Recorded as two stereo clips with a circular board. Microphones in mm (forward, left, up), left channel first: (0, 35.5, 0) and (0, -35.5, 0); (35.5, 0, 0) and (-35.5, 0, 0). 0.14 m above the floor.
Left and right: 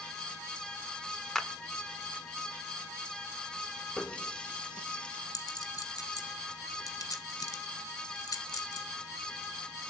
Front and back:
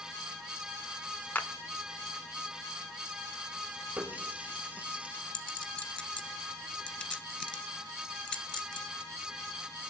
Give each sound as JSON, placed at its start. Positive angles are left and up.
{"t": 1.4, "sound": "a clap", "azimuth_deg": 15, "distance_m": 0.8}
{"t": 4.0, "sound": "a running tap", "azimuth_deg": 145, "distance_m": 0.7}
{"t": 5.3, "sound": "a clink", "azimuth_deg": 80, "distance_m": 1.6}